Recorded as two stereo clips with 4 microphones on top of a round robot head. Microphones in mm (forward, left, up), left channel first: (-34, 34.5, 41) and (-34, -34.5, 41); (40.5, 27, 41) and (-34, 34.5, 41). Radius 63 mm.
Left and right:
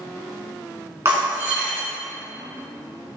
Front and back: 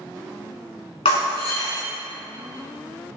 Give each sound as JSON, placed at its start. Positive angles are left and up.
{"t": 1.1, "sound": "breaking glass", "azimuth_deg": -25, "distance_m": 4.5}